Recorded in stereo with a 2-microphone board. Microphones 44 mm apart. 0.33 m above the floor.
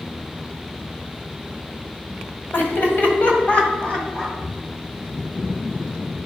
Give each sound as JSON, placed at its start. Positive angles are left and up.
{"t": 2.5, "sound": "laughter", "side_deg": 55, "distance_m": 1.8}